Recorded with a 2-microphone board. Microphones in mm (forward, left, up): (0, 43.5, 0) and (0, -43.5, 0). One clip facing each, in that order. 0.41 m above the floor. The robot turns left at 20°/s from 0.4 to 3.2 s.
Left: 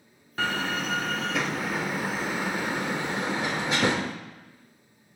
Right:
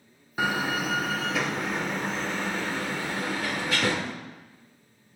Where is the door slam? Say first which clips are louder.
Right 2 dB; 10° right (ahead or behind), 0.6 m; by 4.2 s 20° left (ahead or behind), 0.6 m.